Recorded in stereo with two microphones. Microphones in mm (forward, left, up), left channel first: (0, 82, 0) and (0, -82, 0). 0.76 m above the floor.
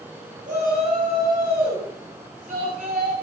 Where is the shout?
55° right (ahead or behind), 6.5 m.